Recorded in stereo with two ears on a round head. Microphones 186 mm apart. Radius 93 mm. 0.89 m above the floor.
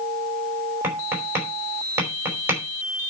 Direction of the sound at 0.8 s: 10° right (ahead or behind).